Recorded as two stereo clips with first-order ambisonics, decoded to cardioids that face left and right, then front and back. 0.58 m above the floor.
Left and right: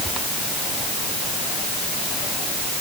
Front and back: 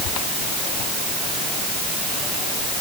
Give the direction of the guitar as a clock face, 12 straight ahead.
No guitar in this recording.